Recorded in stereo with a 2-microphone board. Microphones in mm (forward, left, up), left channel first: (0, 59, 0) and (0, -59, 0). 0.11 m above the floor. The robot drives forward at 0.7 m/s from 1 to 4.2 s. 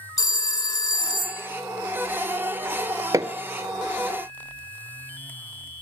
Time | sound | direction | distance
0.2 | a phone ringing | 30° left (ahead or behind) | 0.8 m
3.1 | hammering | 30° right (ahead or behind) | 1.3 m